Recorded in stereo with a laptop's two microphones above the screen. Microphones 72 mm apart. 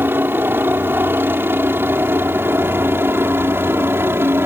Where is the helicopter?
30° right (ahead or behind).